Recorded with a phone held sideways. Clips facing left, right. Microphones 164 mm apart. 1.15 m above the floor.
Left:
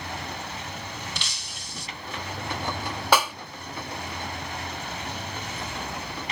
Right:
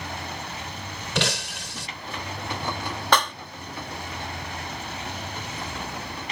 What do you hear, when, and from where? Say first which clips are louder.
1.1 s breaking glass: right 12 dB; 85° right
3.1 s a clap: left 1 dB; 10° left (ahead or behind)